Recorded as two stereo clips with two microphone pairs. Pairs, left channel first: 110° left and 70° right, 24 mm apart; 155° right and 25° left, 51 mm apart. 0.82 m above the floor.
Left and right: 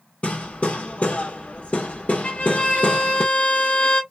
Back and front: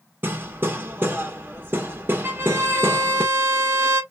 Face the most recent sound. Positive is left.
turn(degrees=75)